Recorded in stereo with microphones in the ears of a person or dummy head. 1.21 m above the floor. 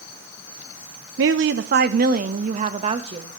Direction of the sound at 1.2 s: 70° right (ahead or behind).